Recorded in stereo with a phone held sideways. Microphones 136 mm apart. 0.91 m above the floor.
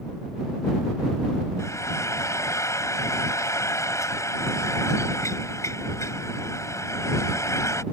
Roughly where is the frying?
Left.